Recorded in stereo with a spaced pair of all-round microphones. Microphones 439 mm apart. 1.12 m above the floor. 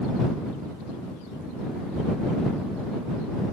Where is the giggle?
I don't hear a giggle.